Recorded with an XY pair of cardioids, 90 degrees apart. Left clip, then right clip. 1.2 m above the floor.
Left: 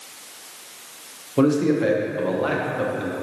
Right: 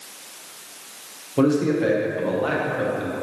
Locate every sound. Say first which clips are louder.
1.4 s a man speaking: left 1 dB; 15° left, 0.6 m